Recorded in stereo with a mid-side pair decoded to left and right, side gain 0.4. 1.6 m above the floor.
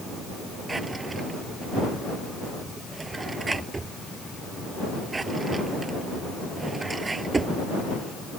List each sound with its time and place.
0.7 s a drawer: 30° right